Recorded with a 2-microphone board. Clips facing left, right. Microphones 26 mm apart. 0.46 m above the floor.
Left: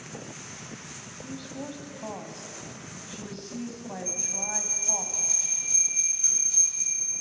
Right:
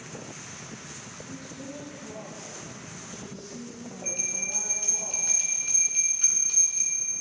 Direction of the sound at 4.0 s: 55° right (ahead or behind).